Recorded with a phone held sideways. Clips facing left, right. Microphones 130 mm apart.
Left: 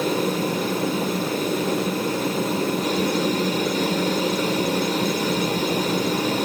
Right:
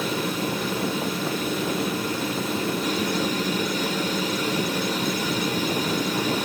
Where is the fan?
45° left (ahead or behind), 1.4 m.